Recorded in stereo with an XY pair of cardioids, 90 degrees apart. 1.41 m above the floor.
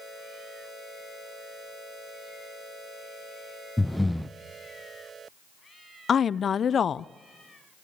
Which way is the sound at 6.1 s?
55° left.